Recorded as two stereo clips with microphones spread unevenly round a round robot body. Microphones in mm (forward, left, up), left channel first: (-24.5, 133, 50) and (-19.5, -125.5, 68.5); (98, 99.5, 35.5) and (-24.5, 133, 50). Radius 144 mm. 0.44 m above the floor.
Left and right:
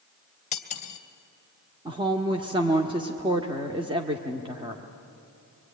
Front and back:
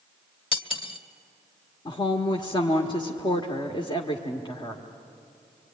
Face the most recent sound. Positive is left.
turn(degrees=-20)